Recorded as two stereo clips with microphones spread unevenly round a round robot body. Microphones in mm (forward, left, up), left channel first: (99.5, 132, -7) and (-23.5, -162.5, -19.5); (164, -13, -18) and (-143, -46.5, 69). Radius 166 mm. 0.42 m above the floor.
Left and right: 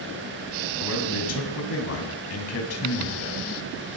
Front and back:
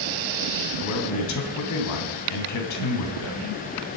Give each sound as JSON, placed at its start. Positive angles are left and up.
{"t": 0.8, "sound": "a man speaking", "azimuth_deg": 25, "distance_m": 3.0}